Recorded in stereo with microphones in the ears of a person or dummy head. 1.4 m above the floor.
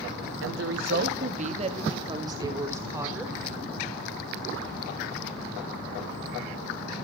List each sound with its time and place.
0.4 s a woman speaking: 80° right, 1.5 m; by 3.4 s 15° right (ahead or behind), 4 m